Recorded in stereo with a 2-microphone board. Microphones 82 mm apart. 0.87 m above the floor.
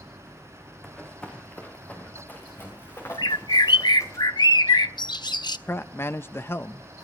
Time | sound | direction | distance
0.8 | running footsteps | 5° left (ahead or behind) | 4 m
3.2 | a bird | 65° left (ahead or behind) | 0.5 m
5.7 | a man speaking | 30° left (ahead or behind) | 0.6 m